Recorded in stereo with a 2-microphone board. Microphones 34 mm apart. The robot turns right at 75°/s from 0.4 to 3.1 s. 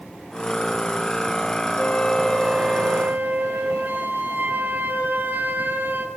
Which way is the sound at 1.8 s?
140° left.